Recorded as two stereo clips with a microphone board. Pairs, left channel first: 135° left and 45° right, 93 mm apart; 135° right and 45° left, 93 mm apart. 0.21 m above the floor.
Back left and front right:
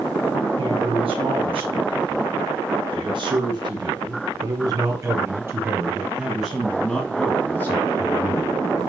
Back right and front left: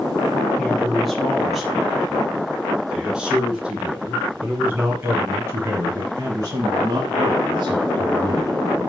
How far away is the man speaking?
About 4 m.